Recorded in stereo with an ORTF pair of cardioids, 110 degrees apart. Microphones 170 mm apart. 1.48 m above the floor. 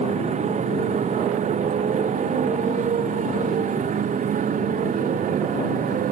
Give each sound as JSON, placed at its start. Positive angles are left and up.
{"t": 0.0, "sound": "a motorcycle", "azimuth_deg": -45}